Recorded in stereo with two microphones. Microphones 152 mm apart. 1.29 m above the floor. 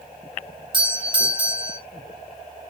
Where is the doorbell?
30° right (ahead or behind), 0.7 m.